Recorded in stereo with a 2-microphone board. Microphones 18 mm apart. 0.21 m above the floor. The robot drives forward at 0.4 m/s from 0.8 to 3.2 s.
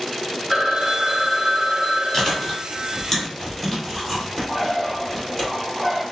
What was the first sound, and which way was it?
A phone ringing, centre (ahead or behind).